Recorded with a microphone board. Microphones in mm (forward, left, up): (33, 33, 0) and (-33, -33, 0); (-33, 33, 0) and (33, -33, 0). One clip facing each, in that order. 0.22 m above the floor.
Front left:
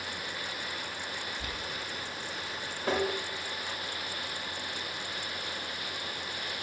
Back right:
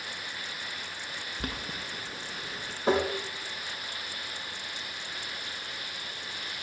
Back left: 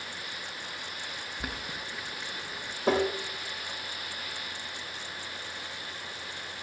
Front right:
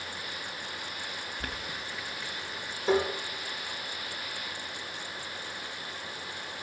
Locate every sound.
1.4 s boiling: 150° right, 6.5 m
2.9 s tapping: 155° left, 7.5 m